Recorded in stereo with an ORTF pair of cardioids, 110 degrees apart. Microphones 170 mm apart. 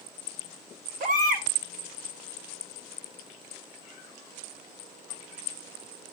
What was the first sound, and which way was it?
A baby crying, 65° right.